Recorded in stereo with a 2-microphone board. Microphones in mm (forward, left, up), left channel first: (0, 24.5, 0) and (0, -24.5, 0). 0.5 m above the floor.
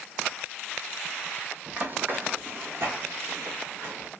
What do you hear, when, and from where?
1.7 s running footsteps: 35° right (ahead or behind), 0.7 m; by 4.1 s 55° right (ahead or behind), 2 m